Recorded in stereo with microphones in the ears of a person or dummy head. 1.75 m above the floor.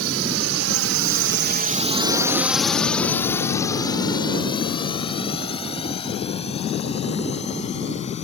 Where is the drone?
75° right (ahead or behind); by 8.2 s 35° left (ahead or behind).